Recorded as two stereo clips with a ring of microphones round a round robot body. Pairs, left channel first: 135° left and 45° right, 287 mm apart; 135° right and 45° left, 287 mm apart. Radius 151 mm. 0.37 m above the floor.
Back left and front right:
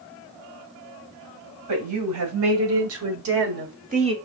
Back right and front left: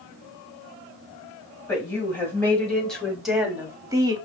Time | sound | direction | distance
1.7 | a woman speaking | 55° right | 2.5 m